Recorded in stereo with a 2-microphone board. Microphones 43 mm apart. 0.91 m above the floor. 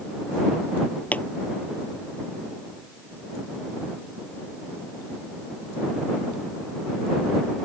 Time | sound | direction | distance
1.1 | a pop | 35° left (ahead or behind) | ?